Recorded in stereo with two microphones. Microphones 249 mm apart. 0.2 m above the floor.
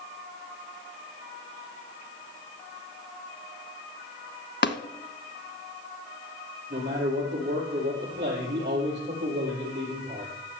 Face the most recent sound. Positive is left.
turn(degrees=-45)  # may be behind; listen again after turning